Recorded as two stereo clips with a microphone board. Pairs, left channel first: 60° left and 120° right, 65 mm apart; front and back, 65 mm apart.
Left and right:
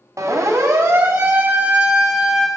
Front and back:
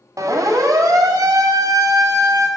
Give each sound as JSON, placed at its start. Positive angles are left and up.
{"t": 0.2, "sound": "a siren", "azimuth_deg": -155, "distance_m": 3.5}